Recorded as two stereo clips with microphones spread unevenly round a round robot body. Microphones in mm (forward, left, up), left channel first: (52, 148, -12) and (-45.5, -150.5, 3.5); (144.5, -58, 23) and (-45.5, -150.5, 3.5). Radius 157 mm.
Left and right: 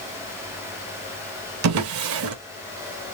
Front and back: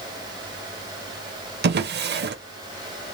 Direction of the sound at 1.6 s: 130° right.